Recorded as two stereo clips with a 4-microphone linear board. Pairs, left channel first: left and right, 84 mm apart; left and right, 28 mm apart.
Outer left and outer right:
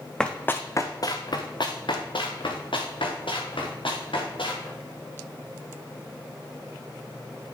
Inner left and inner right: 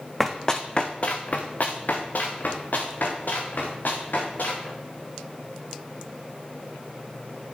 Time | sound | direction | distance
0.2 | running footsteps | 10° left (ahead or behind) | 1.0 m